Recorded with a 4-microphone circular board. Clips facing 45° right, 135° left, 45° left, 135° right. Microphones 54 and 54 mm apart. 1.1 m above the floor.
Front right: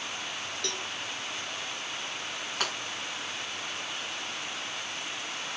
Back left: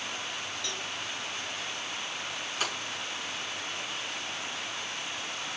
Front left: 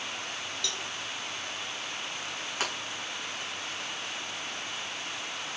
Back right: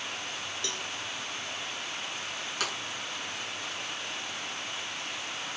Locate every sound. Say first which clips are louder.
0.6 s a cowbell: front right 1 dB, even; 75° right, 0.6 m
2.6 s breaking glass: front right 1 dB, front left 1 dB; 15° right, 4 m